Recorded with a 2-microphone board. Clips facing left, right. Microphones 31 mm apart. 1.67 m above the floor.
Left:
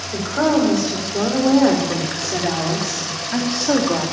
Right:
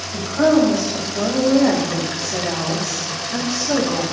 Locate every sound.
0.1 s a woman speaking: 75° left (ahead or behind), 5 m; by 4.0 s 45° left (ahead or behind), 3 m